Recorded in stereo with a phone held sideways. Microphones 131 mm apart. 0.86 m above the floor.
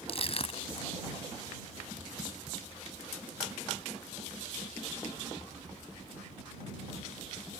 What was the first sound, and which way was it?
Crushing, 50° left (ahead or behind).